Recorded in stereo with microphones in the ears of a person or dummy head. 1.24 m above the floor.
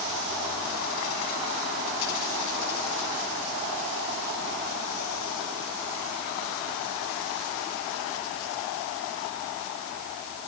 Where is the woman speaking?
I don't hear a woman speaking.